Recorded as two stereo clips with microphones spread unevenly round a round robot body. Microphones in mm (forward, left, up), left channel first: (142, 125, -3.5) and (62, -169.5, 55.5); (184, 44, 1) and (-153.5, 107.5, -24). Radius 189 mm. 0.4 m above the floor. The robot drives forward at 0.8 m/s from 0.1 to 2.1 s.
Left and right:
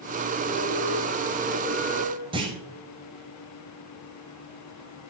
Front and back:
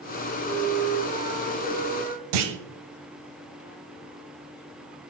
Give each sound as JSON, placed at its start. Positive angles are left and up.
{"t": 0.4, "sound": "a flute", "azimuth_deg": 70, "distance_m": 1.6}
{"t": 2.3, "sound": "a clunk", "azimuth_deg": 175, "distance_m": 1.0}